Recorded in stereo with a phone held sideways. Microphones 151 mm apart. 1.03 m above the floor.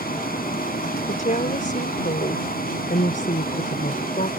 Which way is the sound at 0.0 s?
85° left.